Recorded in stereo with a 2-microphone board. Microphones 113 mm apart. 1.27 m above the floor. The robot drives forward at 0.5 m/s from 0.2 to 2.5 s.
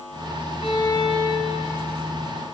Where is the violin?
45° left (ahead or behind), 0.8 m; by 1.9 s 35° left (ahead or behind), 1.1 m.